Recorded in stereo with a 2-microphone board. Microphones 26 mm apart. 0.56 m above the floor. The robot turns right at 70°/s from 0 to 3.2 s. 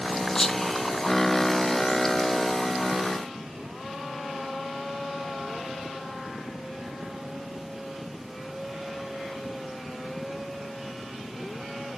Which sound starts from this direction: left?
Whispering, at 0.3 s.